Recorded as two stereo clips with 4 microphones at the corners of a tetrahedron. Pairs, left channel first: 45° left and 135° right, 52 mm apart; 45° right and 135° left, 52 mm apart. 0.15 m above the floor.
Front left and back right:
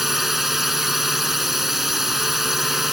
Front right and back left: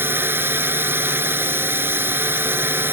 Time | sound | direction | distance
0.0 | a drone | 140° left | ?